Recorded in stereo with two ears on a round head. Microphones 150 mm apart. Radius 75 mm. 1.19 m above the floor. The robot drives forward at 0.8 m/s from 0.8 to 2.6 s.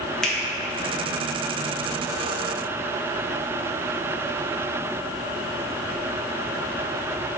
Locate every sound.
0.2 s a finger snap: 5° left (ahead or behind), 1.1 m